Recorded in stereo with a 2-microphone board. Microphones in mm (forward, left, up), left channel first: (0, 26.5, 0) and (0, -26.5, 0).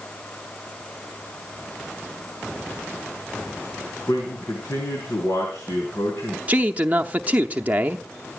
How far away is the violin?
I don't hear a violin.